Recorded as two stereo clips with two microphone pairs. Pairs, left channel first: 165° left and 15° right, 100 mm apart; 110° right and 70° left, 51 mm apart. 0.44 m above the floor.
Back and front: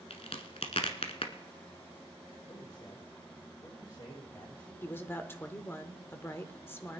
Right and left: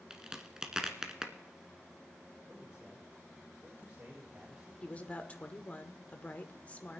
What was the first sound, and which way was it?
A crack, 145° left.